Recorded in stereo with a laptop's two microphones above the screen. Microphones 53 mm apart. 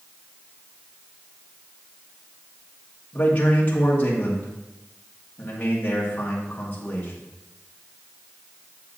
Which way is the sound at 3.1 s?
30° left (ahead or behind).